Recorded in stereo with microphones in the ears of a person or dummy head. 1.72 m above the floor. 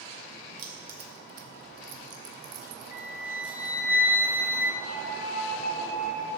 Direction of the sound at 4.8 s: 85° right.